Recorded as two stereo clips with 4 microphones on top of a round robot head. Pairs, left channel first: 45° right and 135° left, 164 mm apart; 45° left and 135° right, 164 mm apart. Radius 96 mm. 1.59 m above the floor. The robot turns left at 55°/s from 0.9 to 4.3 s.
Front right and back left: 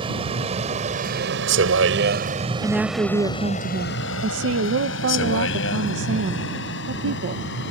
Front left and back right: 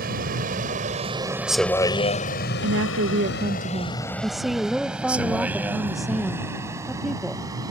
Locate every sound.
0.0 s a vehicle: 165° right; by 7.7 s 60° right
2.6 s a woman speaking: 130° right; by 7.4 s 140° left